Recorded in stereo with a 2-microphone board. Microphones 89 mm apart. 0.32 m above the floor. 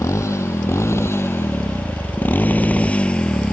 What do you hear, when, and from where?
0.0 s a motorcycle: 35° left (ahead or behind); by 3.5 s 10° left (ahead or behind)